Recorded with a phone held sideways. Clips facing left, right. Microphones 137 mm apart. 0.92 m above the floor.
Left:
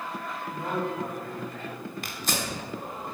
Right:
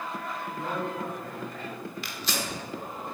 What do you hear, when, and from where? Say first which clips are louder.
0.5 s a man speaking: left 3 dB; 15° left (ahead or behind), 4.5 m; by 1.6 s 20° left (ahead or behind), 4.5 m
2.0 s tearing paper: left 3 dB; 50° left (ahead or behind), 1.6 m